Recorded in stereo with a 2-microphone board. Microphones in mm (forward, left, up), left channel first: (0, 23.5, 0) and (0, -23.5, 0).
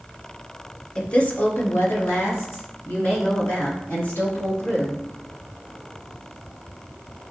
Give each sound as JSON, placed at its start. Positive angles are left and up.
{"t": 0.9, "sound": "a woman speaking", "side_deg": 15, "distance_m": 0.8}